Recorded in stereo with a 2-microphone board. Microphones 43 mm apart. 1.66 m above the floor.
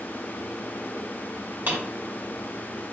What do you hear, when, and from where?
1.7 s a drawer: 55° right (ahead or behind), 1.3 m